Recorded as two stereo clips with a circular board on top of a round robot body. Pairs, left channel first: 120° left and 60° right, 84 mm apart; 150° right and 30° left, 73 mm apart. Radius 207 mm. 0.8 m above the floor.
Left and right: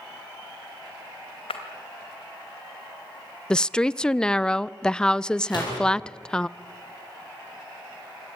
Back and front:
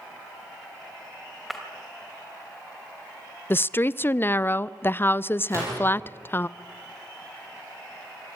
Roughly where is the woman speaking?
Behind.